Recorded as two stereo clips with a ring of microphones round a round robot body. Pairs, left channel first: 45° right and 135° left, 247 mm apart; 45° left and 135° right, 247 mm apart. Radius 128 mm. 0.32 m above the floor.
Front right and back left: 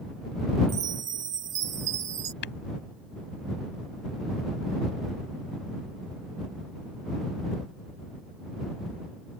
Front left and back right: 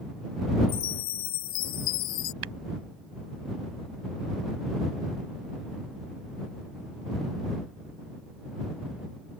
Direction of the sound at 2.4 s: 95° right.